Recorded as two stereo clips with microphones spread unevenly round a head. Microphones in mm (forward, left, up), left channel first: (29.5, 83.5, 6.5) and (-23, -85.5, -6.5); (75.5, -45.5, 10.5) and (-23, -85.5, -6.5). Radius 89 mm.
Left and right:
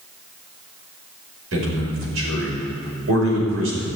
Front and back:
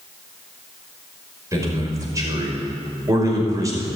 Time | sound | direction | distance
1.5 | a man speaking | 100° right | 5.5 m